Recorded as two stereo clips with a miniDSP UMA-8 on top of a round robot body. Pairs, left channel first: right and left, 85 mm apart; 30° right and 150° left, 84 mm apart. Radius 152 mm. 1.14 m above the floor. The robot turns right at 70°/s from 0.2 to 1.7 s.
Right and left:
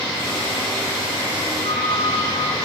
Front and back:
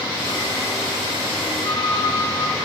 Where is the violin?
90° right, 8.5 m.